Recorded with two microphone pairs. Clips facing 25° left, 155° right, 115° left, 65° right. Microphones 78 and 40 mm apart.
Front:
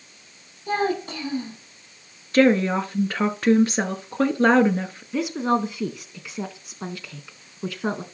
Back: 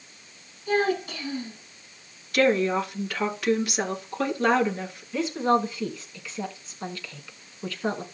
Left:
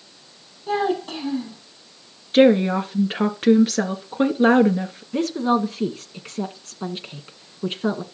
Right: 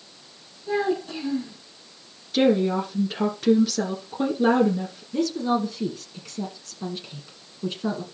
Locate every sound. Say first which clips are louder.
0.7 s a child speaking: even, left 2 dB; 80° left, 5 m
2.3 s a woman speaking: front 4 dB, left 5 dB; 75° left, 2 m
5.1 s a woman speaking: even, left 3 dB; 90° left, 1.3 m